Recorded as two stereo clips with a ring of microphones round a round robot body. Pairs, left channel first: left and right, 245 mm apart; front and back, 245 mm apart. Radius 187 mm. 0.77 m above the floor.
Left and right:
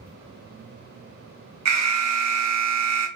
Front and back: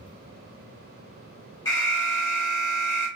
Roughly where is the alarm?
Right.